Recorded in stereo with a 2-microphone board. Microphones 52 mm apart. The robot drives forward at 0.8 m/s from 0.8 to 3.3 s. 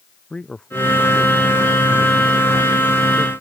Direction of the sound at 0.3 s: 20° left (ahead or behind).